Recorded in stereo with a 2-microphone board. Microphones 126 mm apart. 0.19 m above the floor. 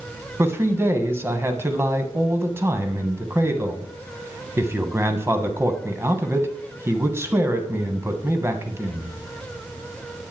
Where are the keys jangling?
I don't hear keys jangling.